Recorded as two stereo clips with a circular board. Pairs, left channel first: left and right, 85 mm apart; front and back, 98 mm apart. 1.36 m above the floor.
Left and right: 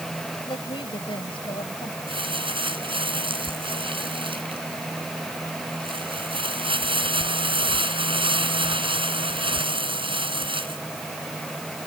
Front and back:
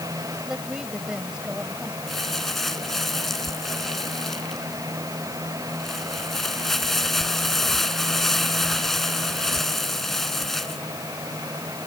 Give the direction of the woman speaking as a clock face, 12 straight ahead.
9 o'clock.